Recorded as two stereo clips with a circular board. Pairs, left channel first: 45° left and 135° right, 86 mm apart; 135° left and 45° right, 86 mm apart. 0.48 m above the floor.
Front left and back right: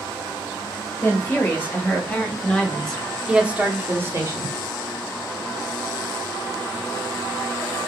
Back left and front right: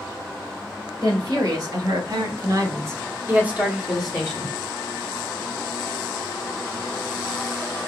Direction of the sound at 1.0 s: 15° right.